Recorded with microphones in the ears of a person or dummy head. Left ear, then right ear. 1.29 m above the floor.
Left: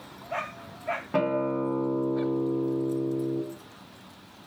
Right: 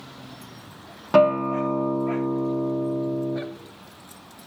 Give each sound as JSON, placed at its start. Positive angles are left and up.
{"t": 1.1, "sound": "a guitar", "side_deg": -80, "distance_m": 0.8}